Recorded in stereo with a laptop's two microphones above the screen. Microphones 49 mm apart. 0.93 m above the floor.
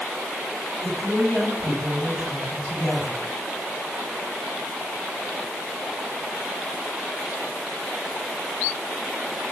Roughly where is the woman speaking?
Right.